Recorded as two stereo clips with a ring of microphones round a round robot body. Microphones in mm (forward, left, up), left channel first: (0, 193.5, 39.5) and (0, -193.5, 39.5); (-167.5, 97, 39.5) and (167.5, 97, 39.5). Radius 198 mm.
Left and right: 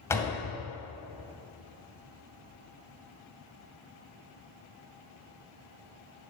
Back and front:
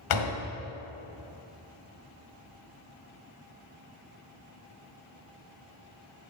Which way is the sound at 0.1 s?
175° left.